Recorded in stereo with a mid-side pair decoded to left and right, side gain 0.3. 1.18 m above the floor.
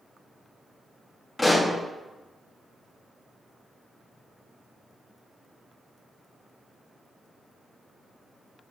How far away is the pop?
About 2 m.